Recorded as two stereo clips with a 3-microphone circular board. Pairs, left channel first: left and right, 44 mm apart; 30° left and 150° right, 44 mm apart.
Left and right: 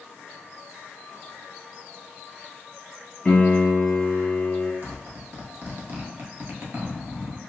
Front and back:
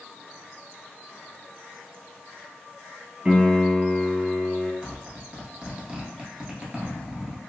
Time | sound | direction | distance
3.2 | a piano | 150° left | 1.0 m
4.8 | a zipper | 95° right | 1.1 m